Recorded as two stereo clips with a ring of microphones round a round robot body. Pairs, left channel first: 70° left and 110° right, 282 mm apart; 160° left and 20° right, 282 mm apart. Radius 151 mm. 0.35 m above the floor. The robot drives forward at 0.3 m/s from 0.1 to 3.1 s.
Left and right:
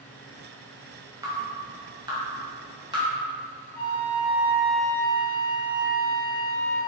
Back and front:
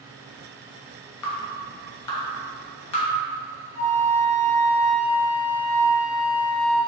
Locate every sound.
1.2 s dripping: 170° left, 1.8 m
3.7 s a flute: 110° left, 2.5 m